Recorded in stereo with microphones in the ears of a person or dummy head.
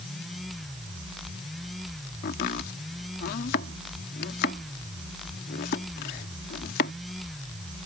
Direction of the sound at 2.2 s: 50° left (ahead or behind).